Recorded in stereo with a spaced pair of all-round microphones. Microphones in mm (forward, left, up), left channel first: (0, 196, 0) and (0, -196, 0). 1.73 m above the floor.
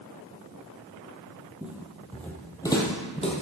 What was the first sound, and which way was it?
Footsteps, 5° right (ahead or behind).